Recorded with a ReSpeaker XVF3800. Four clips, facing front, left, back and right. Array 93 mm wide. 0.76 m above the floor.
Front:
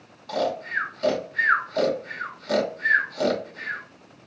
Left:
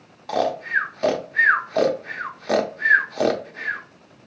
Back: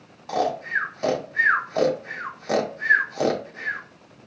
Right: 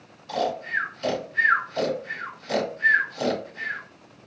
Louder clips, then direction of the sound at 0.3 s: Left 4 dB, back 2 dB; 105° left.